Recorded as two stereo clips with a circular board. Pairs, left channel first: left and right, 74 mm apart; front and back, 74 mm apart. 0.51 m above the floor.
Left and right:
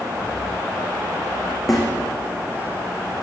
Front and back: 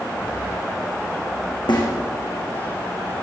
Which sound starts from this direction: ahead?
A snare drum, at 1.7 s.